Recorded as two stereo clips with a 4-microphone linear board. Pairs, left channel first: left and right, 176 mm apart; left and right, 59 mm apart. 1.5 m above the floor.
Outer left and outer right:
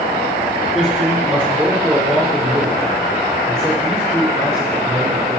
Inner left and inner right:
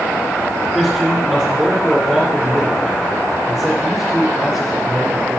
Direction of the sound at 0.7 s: 5° right (ahead or behind).